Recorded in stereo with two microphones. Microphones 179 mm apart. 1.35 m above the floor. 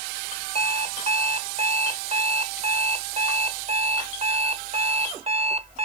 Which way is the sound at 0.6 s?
40° right (ahead or behind).